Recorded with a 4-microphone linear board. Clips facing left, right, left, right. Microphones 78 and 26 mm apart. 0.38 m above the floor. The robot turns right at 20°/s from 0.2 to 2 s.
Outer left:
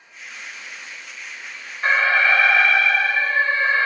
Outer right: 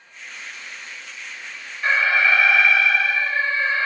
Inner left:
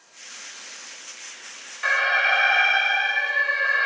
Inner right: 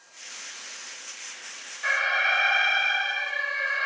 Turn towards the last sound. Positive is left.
turn(degrees=40)  # may be behind; listen again after turning